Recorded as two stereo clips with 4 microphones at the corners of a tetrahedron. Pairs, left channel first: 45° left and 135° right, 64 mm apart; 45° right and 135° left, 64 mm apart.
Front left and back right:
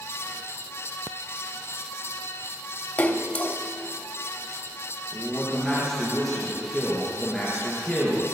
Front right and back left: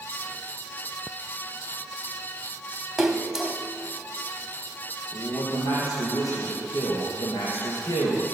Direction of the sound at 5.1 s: 30° right.